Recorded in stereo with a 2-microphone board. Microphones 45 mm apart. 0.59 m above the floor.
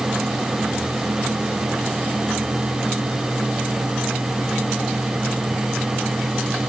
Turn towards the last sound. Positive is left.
No sound to turn to.